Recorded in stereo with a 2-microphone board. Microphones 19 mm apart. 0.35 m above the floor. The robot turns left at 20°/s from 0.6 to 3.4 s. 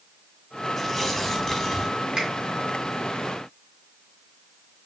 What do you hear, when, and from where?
0.8 s tearing paper: 10° left (ahead or behind), 1.0 m; by 2.0 s 20° left (ahead or behind), 1.0 m
2.2 s a finger snap: 40° right (ahead or behind), 3 m; by 2.3 s 35° right (ahead or behind), 3 m